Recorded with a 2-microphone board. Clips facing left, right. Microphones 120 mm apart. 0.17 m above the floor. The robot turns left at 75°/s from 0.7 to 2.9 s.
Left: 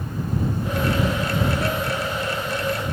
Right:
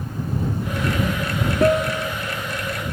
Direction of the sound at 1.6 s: 125° right.